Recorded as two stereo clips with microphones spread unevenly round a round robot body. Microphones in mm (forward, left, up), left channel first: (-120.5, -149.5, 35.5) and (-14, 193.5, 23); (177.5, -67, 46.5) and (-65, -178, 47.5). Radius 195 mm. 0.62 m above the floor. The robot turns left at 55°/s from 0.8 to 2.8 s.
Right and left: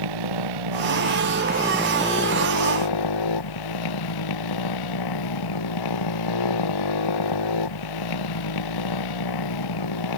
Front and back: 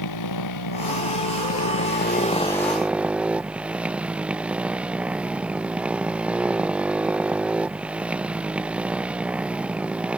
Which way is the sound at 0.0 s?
40° left.